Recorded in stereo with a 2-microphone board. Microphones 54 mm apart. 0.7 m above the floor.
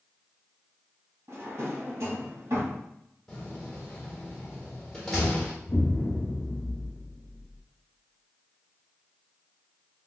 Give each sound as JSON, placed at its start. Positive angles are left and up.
{"t": 1.3, "sound": "a drawer", "side_deg": -65, "distance_m": 1.2}
{"t": 3.3, "sound": "a door slam", "side_deg": 10, "distance_m": 1.2}
{"t": 5.7, "sound": "an explosion", "side_deg": 45, "distance_m": 0.7}